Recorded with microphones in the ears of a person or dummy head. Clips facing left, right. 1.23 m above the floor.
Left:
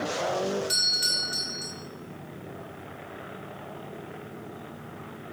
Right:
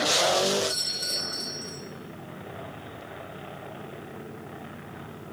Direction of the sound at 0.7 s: 35° left (ahead or behind).